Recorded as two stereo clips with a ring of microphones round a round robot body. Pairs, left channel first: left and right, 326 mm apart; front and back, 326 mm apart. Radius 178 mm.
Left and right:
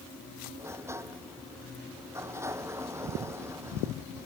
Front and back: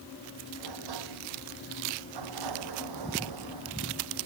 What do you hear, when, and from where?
0.6 s a sliding door: 170° right